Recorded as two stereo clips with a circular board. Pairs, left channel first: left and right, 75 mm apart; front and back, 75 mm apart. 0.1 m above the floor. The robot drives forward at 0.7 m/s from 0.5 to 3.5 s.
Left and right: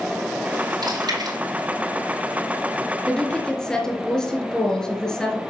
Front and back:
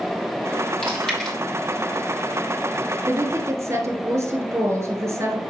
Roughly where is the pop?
No pop in this recording.